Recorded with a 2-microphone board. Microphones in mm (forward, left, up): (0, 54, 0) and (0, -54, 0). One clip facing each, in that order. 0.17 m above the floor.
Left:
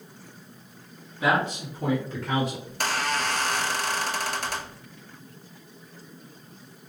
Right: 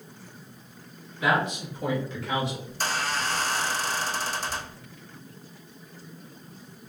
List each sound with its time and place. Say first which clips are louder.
1.2 s a man speaking: left 1 dB; 25° left (ahead or behind), 1.3 m; by 2.6 s 45° left (ahead or behind), 1.8 m
2.7 s a squeak: left 2 dB; 70° left (ahead or behind), 0.8 m